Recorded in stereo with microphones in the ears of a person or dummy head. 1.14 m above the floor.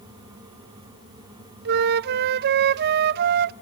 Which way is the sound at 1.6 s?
60° right (ahead or behind).